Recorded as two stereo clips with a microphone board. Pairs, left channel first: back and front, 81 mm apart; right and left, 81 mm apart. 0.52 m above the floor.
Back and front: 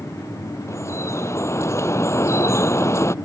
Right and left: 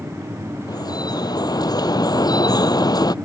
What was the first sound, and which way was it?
Dripping, 125° right.